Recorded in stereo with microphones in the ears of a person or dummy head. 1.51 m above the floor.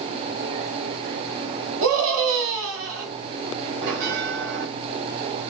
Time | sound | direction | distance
1.8 | a scream | 70° right (ahead or behind) | 0.8 m
3.8 | a bell | 65° right (ahead or behind) | 1.3 m